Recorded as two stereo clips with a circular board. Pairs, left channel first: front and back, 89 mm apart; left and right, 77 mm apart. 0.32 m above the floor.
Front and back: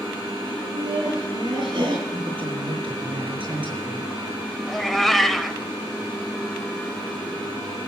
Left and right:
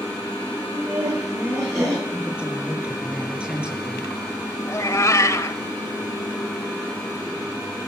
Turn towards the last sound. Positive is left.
turn(degrees=85)